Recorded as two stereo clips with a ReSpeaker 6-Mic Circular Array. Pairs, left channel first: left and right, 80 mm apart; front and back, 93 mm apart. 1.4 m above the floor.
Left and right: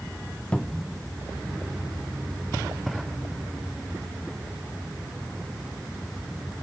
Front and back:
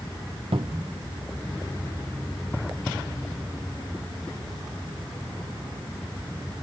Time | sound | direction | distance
0.5 | a cupboard door | 165° left | 0.9 m